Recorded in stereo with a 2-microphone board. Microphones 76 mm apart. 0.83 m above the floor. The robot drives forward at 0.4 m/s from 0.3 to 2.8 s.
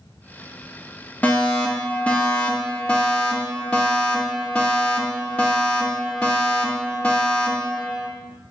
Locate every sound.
1.2 s a fire alarm: 20° left (ahead or behind), 1.4 m; by 8.1 s 15° left (ahead or behind), 1.8 m